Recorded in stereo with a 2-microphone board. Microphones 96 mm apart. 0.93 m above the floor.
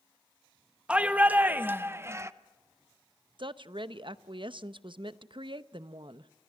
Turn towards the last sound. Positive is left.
turn(degrees=-60)  # may be behind; listen again after turning